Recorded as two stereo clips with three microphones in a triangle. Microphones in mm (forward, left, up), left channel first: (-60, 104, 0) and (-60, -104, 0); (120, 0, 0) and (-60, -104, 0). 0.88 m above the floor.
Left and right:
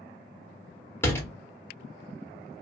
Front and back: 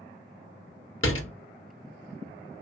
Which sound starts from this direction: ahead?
A door slam, at 1.0 s.